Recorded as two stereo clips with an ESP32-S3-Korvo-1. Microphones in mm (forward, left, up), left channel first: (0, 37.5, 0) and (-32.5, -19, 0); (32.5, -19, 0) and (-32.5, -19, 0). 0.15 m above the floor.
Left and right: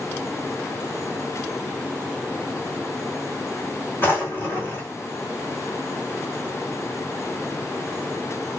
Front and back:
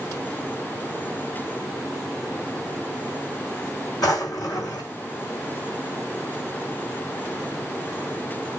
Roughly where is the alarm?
No alarm in this recording.